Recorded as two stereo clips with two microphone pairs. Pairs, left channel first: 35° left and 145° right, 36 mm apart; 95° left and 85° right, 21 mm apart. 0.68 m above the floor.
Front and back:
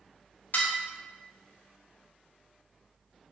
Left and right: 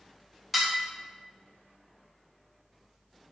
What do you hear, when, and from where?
0.5 s dishes clattering: straight ahead, 0.5 m